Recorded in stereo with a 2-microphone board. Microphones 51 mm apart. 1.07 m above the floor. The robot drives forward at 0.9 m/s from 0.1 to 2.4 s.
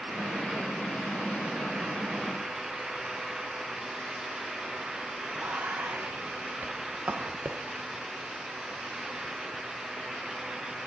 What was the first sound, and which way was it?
Whispering, 45° right (ahead or behind).